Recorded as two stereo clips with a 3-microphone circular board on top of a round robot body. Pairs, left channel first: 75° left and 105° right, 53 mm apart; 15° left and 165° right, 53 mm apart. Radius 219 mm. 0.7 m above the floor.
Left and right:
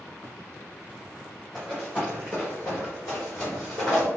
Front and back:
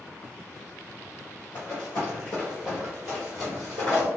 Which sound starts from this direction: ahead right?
Running footsteps, at 1.6 s.